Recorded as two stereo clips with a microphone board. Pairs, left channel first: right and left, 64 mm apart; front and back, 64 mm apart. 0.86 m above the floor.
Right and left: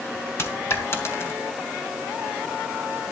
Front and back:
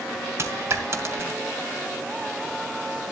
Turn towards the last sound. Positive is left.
turn(degrees=-135)